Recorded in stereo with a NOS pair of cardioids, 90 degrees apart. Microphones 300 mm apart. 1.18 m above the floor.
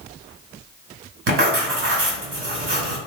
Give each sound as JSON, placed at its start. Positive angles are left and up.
{"t": 1.3, "sound": "writing", "azimuth_deg": -45, "distance_m": 1.8}